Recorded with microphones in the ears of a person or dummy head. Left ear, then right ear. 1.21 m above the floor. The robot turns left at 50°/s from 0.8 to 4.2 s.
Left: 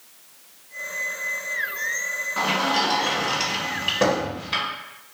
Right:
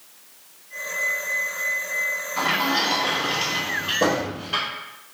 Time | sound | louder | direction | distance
2.4 | a sliding door | even | 45° left (ahead or behind) | 1.2 m